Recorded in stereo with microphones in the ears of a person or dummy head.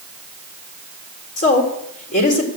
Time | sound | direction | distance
1.4 | a woman speaking | 40° left (ahead or behind) | 3.5 m